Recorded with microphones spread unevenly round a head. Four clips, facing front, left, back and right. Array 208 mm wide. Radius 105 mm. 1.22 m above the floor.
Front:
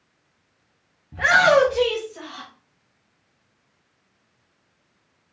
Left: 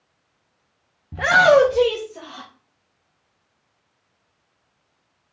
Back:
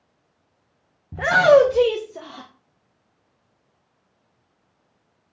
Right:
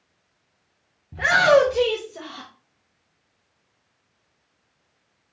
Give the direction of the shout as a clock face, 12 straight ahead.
7 o'clock.